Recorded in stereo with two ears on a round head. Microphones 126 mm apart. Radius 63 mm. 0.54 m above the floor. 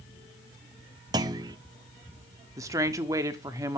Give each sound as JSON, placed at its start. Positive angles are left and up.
{"t": 1.1, "sound": "a clunk", "side_deg": -30, "distance_m": 0.8}
{"t": 2.6, "sound": "a woman speaking", "side_deg": -25, "distance_m": 1.2}